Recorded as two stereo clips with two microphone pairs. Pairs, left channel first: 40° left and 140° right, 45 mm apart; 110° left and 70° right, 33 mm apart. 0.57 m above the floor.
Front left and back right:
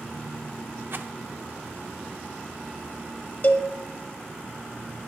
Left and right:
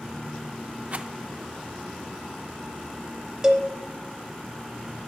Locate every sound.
0.9 s a rattle: 110° right, 0.5 m
3.4 s a cowbell: 5° right, 0.8 m